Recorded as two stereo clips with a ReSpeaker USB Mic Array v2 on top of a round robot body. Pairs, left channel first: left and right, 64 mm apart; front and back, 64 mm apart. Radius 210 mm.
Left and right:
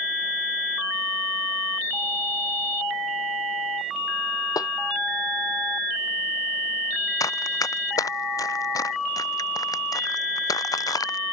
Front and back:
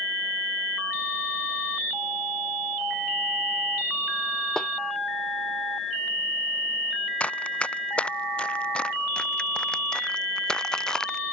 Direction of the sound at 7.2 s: 70° left.